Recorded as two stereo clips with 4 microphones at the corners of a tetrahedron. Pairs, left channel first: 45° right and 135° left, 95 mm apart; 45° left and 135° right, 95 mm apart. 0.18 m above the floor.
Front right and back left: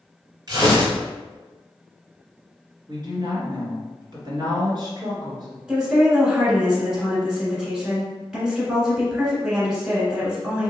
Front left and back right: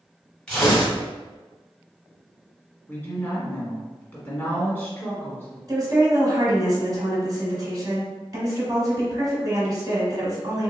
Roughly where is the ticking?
I don't hear ticking.